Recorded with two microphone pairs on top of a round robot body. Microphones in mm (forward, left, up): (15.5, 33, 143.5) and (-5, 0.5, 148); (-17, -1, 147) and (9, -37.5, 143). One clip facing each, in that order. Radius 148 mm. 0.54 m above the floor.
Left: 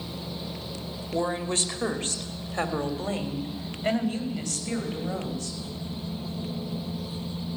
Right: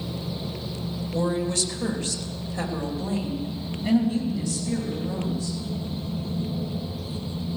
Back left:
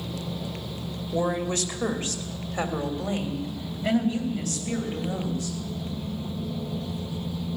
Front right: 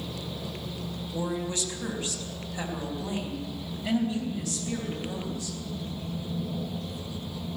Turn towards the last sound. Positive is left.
turn(degrees=70)